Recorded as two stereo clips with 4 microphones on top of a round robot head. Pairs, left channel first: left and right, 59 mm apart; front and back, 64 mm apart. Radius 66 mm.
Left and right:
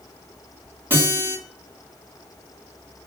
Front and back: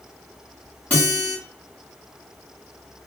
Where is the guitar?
55° right, 1.6 m.